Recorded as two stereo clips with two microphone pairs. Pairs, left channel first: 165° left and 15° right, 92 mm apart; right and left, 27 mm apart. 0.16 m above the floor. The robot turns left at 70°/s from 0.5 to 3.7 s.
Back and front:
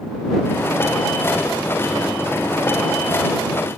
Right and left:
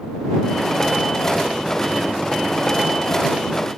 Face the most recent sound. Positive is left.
No sound to turn to.